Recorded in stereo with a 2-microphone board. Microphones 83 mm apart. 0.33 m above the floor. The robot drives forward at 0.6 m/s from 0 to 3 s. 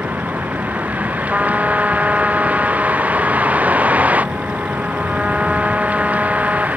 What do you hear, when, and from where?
0.0 s a vehicle: 20° right (ahead or behind); by 6.8 s 15° right (ahead or behind)
1.3 s a trumpet: 15° right (ahead or behind); by 6.7 s 10° right (ahead or behind)